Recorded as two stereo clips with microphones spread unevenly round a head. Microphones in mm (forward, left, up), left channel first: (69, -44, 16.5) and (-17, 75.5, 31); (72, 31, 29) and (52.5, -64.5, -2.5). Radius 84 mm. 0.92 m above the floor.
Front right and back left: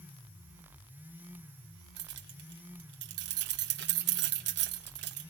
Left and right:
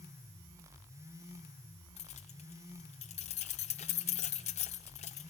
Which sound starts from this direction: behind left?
Keys jangling, at 2.0 s.